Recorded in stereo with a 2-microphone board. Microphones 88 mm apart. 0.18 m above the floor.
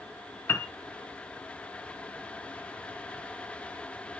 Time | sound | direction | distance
0.5 | a piano | 30° left (ahead or behind) | 0.7 m